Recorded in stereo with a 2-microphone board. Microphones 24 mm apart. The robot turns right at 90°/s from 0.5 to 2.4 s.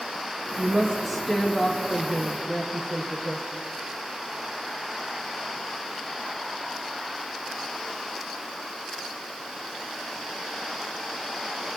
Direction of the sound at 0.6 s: 45° right.